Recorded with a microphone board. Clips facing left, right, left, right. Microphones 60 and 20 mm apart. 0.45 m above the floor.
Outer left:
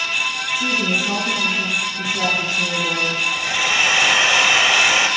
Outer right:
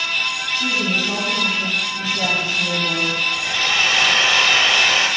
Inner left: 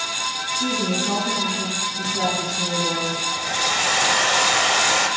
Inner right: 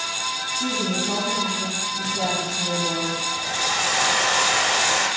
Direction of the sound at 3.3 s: 10° left (ahead or behind).